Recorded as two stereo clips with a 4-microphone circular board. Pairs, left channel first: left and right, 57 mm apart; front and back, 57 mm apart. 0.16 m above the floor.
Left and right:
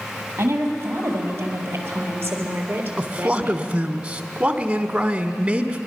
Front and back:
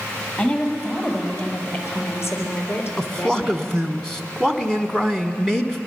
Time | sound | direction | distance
0.4 | a woman speaking | 55° right | 4.5 m
3.0 | a man speaking | 60° right | 1.1 m